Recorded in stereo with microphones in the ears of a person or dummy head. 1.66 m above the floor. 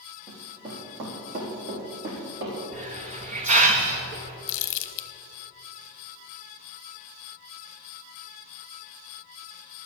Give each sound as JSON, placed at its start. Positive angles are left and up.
{"t": 0.3, "sound": "running footsteps", "side_deg": -40, "distance_m": 3.5}
{"t": 2.7, "sound": "a hiss", "side_deg": -35, "distance_m": 1.3}
{"t": 4.5, "sound": "crumpling", "side_deg": 60, "distance_m": 0.9}